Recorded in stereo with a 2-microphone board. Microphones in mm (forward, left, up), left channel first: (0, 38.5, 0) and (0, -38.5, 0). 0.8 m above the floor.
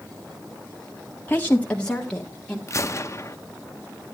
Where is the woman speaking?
25° left (ahead or behind), 0.8 m; by 2.6 s 5° left (ahead or behind), 2.5 m.